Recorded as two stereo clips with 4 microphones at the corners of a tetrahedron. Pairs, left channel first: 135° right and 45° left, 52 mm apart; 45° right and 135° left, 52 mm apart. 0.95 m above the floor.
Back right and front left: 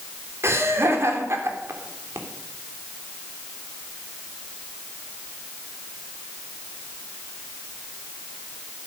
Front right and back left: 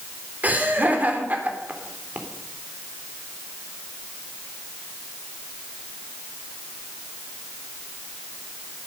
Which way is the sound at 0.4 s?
75° left.